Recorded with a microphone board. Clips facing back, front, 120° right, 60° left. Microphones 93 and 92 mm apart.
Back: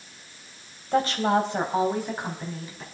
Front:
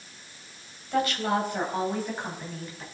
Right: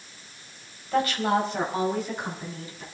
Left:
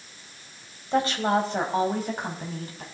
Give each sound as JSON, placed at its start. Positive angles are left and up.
{"t": 0.9, "sound": "a woman speaking", "azimuth_deg": 125, "distance_m": 3.5}